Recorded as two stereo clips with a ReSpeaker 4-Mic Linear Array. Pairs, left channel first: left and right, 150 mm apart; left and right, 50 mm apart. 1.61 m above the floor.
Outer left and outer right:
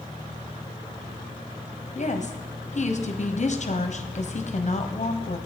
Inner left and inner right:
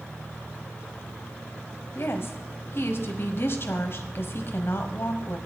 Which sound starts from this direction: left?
A woman speaking, at 1.9 s.